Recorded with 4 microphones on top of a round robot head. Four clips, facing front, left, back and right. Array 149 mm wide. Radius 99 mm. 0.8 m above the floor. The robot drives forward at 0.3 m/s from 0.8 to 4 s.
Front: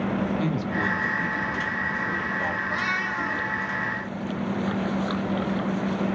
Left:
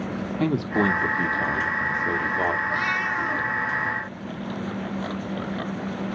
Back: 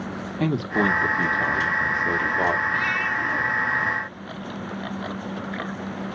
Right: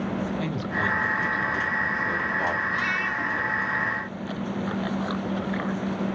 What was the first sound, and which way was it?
A man speaking, 130° left.